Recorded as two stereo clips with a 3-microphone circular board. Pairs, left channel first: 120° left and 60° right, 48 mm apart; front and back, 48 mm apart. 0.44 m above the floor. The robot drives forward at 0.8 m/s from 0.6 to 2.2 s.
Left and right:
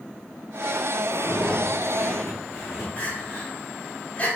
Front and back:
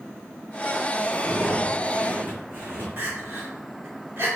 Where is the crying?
170° left, 1.2 m.